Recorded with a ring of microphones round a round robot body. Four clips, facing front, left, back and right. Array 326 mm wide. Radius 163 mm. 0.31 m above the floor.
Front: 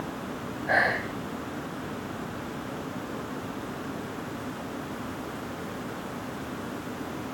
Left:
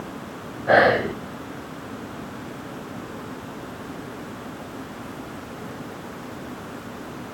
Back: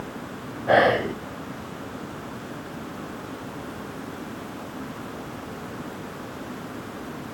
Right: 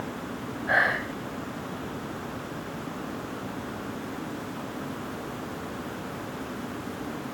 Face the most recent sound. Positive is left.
turn(degrees=125)